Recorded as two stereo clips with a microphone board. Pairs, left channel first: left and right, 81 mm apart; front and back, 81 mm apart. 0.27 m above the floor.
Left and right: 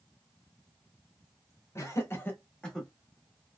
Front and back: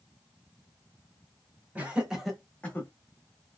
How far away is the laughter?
About 1.3 m.